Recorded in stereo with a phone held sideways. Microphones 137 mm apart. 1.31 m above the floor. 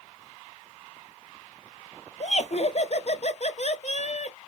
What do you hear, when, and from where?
2.2 s laughter: 55° left (ahead or behind), 0.6 m